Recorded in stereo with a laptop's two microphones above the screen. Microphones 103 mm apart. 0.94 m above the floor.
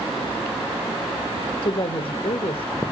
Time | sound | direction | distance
1.6 | a woman speaking | 65° left (ahead or behind) | 1.4 m